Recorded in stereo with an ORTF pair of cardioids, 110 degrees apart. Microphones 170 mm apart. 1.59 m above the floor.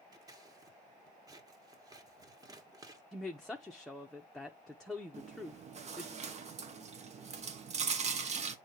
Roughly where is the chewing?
Ahead right.